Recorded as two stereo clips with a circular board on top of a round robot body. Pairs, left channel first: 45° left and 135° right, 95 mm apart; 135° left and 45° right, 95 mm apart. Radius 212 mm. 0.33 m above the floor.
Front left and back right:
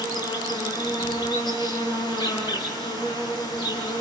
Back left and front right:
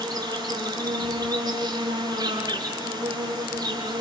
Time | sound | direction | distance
0.0 | an insect | 5° left | 8.5 m